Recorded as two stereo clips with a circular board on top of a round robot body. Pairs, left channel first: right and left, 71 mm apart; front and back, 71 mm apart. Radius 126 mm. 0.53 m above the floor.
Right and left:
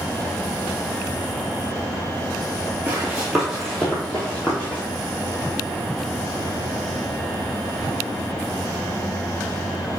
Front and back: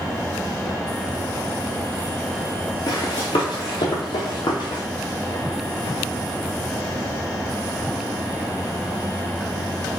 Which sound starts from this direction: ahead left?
Running footsteps, at 2.9 s.